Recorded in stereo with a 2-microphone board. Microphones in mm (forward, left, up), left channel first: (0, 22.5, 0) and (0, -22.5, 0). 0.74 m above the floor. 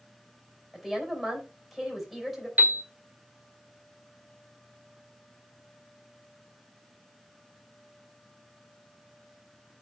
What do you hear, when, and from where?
0.7 s a woman speaking: centre (ahead or behind), 4 m
2.6 s a piano: 35° right (ahead or behind), 2.0 m